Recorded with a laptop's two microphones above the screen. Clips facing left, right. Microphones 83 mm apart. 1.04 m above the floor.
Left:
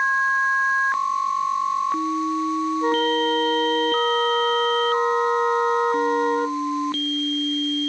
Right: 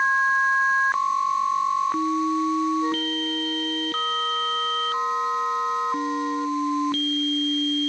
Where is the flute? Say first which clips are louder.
Left 6 dB; 55° left (ahead or behind).